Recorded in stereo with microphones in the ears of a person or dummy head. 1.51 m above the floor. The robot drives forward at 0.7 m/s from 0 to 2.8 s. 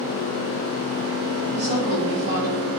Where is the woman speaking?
60° right (ahead or behind), 3 m; by 2.5 s 75° right (ahead or behind), 2.5 m.